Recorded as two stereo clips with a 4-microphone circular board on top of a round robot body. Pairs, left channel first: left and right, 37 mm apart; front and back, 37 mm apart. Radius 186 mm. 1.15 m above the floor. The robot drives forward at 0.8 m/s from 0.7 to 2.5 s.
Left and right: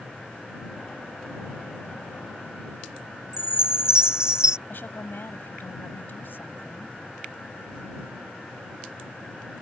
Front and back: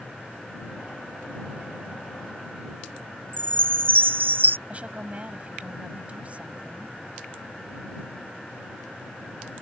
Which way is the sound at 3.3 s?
160° right.